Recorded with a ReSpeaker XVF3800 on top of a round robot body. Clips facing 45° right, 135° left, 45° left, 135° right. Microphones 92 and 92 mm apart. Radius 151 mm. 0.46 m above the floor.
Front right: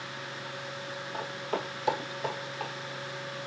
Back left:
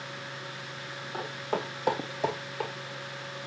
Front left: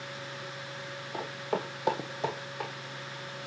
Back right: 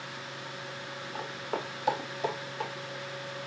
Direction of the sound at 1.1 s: 50° left.